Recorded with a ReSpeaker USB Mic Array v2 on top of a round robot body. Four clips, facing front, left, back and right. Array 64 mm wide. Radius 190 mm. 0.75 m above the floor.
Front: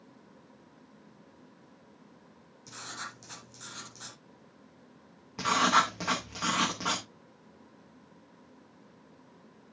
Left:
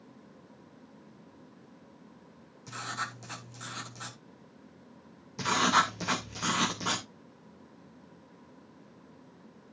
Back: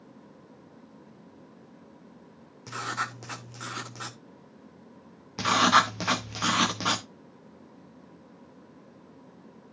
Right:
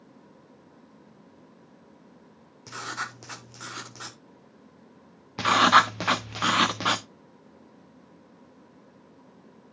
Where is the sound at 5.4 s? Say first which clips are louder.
Right 7 dB, back 4 dB; 105° right, 1.3 m.